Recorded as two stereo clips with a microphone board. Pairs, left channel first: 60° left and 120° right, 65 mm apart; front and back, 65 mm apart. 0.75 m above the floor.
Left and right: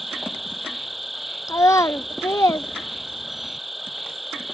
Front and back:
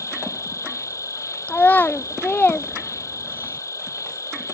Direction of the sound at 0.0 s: 30° right.